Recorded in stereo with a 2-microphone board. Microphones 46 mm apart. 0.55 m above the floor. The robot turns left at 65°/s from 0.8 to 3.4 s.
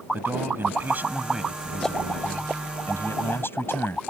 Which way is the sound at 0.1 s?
130° right.